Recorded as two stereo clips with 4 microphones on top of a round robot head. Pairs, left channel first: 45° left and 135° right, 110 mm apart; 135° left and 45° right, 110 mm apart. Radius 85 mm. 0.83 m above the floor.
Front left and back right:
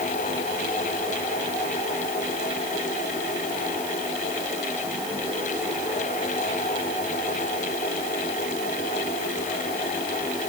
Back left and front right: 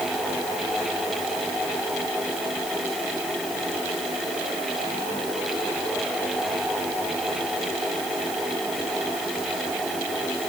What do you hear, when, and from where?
Only background noise.